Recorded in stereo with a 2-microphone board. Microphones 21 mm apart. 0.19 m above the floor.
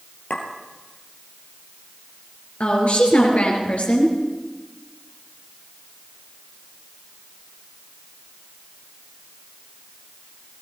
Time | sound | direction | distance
0.3 | a clink | 75° left (ahead or behind) | 2.5 m
2.6 | a woman speaking | 65° left (ahead or behind) | 4 m